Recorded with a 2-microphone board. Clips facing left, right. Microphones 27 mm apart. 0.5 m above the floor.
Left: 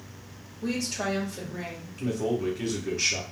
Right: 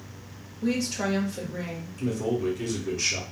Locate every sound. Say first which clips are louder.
0.6 s a woman speaking: right 3 dB; 5° right (ahead or behind), 1.2 m
2.0 s a man speaking: even; 15° left (ahead or behind), 1.1 m